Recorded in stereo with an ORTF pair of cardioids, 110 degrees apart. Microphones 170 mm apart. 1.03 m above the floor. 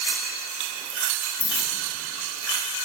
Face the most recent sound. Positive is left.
turn(degrees=30)